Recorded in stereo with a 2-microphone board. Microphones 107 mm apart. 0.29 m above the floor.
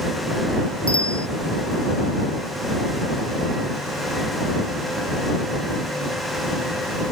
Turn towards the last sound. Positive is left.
turn(degrees=55)  # may be behind; listen again after turning